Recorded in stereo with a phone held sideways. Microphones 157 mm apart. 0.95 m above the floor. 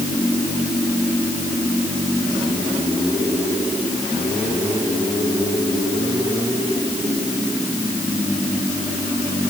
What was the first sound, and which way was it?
Only background noise.